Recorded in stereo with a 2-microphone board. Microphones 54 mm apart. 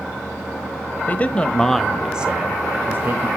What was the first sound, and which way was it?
A man speaking, 35° left (ahead or behind).